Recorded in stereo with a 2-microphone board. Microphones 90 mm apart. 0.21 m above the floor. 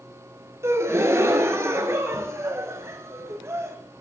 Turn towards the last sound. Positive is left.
turn(degrees=-30)  # may be behind; listen again after turning